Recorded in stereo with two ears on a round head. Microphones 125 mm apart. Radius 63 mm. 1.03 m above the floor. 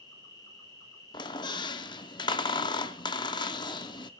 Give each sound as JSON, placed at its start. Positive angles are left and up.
{"t": 0.0, "sound": "an insect", "side_deg": 25, "distance_m": 3.5}
{"t": 1.1, "sound": "a squeak", "side_deg": 30, "distance_m": 0.6}